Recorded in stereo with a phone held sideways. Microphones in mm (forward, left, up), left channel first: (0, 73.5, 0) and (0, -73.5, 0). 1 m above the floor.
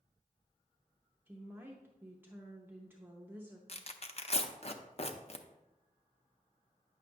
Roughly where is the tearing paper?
Left.